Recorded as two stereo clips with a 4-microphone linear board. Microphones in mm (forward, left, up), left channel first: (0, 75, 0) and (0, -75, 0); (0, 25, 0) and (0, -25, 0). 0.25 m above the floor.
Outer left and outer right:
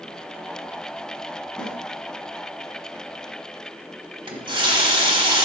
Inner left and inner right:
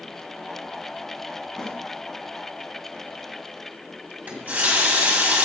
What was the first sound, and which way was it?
A snare drum, 10° left (ahead or behind).